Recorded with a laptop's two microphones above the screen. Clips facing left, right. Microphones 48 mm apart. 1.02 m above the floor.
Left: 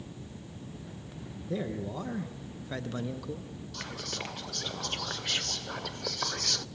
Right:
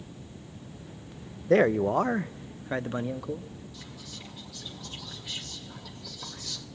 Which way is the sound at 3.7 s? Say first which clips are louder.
Left 6 dB; 65° left (ahead or behind).